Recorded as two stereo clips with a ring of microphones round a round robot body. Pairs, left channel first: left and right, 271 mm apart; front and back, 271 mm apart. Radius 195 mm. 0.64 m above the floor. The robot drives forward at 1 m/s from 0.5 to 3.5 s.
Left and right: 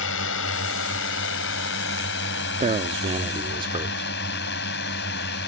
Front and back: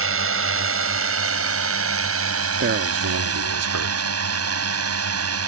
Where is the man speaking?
150° right; by 4.1 s 165° right.